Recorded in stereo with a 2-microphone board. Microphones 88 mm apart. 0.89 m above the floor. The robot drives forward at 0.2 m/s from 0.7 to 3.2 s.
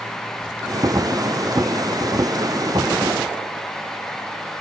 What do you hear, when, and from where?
Only background noise.